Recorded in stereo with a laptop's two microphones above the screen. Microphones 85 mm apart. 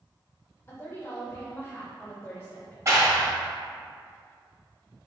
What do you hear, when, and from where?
0.7 s a woman speaking: 30° left (ahead or behind), 1.3 m
2.9 s a clap: 35° right (ahead or behind), 1.2 m